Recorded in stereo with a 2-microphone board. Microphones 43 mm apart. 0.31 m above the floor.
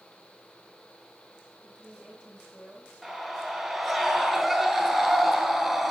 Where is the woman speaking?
30° right (ahead or behind), 4 m.